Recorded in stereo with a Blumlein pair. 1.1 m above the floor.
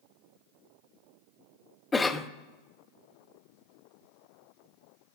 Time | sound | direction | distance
1.9 | a cough | 15° left | 0.5 m